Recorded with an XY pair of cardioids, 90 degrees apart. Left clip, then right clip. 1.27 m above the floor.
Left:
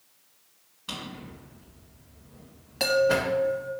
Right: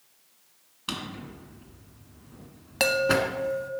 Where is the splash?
I don't hear a splash.